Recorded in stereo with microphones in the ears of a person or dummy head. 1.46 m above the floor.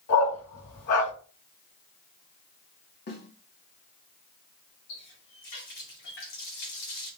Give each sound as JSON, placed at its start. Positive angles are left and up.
{"t": 0.1, "sound": "a dog barking", "side_deg": 55, "distance_m": 3.5}
{"t": 3.1, "sound": "a snare drum", "side_deg": 55, "distance_m": 1.9}
{"t": 4.9, "sound": "a running tap", "side_deg": 65, "distance_m": 2.5}